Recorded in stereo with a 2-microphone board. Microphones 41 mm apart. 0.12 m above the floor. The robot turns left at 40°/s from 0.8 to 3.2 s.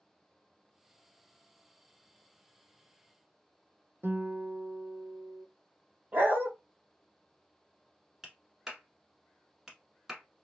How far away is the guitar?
About 0.6 m.